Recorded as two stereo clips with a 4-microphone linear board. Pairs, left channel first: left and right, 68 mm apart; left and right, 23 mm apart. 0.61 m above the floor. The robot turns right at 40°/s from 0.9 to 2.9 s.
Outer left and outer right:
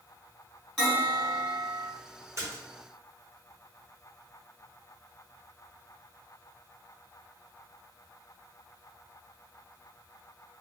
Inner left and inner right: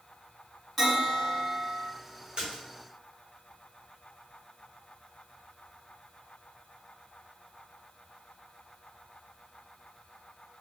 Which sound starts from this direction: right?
A splash, at 2.4 s.